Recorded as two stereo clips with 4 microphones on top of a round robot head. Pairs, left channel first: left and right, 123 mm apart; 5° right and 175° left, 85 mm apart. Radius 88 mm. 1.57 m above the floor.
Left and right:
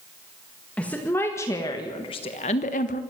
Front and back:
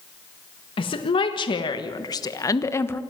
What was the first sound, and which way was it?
A woman speaking, 10° left.